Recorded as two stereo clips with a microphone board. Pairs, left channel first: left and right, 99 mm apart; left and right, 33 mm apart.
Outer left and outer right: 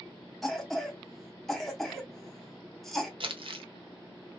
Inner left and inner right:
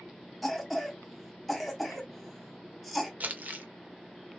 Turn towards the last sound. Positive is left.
turn(degrees=-60)  # may be behind; listen again after turning